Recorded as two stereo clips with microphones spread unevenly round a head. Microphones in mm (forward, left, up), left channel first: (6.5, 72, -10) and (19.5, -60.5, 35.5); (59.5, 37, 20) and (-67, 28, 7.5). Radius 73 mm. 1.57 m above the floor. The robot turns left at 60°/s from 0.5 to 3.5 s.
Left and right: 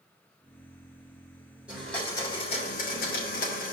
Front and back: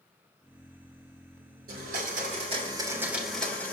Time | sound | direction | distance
1.7 | a blender | 170° right | 3 m